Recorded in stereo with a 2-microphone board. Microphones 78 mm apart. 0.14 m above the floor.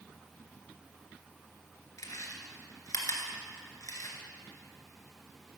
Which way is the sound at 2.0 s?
50° left (ahead or behind).